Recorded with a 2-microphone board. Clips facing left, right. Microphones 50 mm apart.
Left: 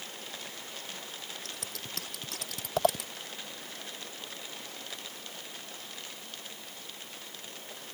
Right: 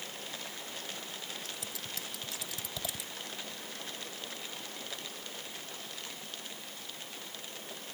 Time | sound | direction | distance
1.4 | scissors | 60° left (ahead or behind) | ?